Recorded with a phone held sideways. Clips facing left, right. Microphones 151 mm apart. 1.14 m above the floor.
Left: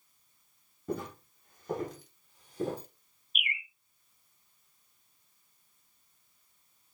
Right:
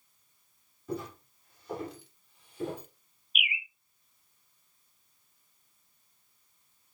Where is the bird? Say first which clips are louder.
Right 2 dB; 5° right (ahead or behind), 0.5 m.